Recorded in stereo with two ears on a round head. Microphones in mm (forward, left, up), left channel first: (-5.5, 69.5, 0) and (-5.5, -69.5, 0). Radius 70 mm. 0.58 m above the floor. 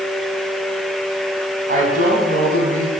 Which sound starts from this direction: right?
A woman speaking, at 1.7 s.